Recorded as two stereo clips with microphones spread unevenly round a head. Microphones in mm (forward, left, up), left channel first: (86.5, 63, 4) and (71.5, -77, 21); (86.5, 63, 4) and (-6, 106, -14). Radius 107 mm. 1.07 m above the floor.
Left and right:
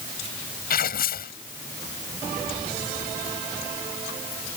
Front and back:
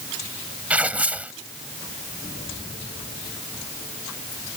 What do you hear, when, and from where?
0.7 s tearing paper: 75° left